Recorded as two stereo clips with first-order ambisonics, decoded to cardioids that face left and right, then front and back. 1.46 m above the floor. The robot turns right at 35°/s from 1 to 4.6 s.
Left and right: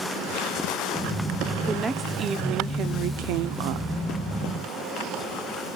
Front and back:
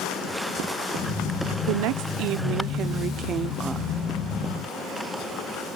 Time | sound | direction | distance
1.7 | a woman speaking | 170° right | 0.9 m